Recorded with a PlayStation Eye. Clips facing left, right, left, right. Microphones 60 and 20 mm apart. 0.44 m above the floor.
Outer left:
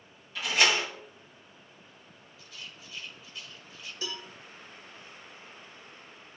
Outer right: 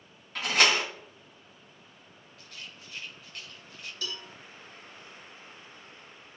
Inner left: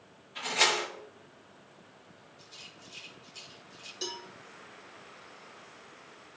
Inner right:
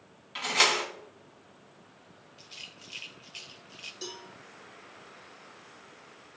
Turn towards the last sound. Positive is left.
turn(degrees=20)  # may be behind; listen again after turning